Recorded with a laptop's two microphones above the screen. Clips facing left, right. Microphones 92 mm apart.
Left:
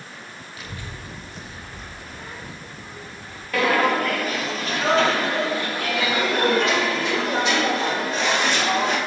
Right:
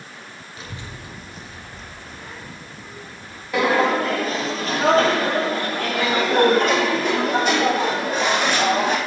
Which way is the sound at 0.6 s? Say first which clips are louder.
Right 1 dB; 30° right (ahead or behind).